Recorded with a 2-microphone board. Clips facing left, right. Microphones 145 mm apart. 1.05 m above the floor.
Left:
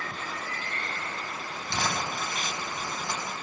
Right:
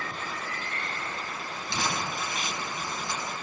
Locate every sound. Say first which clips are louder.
1.7 s crumpling: left 1 dB; 55° left (ahead or behind), 4.5 m